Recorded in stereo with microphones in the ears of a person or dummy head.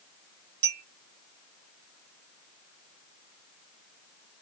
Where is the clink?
55° right (ahead or behind), 1.6 m.